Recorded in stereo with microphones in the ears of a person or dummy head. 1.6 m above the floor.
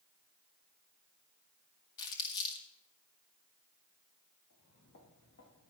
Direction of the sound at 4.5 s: 65° left (ahead or behind).